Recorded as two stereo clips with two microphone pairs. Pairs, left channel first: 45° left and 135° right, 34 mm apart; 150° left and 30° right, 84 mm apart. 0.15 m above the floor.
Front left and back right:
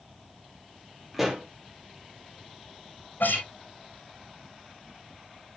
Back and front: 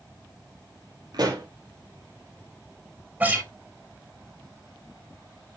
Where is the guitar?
35° left, 2.5 m.